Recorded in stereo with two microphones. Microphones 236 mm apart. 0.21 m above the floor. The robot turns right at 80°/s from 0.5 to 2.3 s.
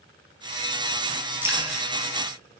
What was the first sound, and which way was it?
Dripping, 5° right (ahead or behind).